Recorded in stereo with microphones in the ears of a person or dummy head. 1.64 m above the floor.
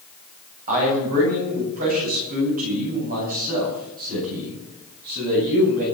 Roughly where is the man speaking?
Right.